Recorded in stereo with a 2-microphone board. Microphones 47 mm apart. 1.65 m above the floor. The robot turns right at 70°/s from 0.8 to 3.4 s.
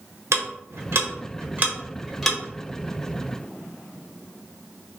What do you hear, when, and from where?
0.3 s ticking: 85° right, 0.8 m; by 2.4 s 15° left (ahead or behind), 0.8 m